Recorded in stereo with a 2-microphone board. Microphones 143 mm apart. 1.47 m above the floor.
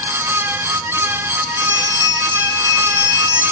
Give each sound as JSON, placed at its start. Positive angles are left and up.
{"t": 1.6, "sound": "a bell", "side_deg": -35, "distance_m": 8.0}